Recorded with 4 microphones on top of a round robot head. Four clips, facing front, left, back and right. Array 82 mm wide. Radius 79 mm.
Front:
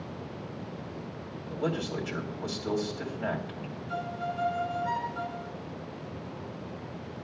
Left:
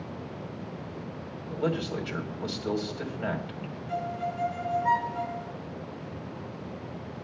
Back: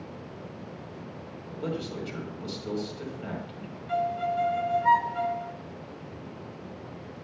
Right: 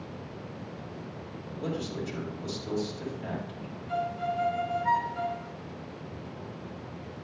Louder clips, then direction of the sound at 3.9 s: Right 2 dB, back 7 dB; 165° left.